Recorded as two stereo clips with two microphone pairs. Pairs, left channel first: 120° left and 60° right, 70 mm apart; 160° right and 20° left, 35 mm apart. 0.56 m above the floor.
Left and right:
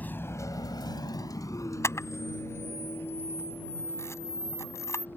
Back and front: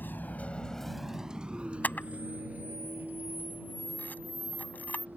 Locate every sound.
0.0 s a vehicle: 175° right; by 5.2 s 55° left
1.8 s a camera shutter: 165° left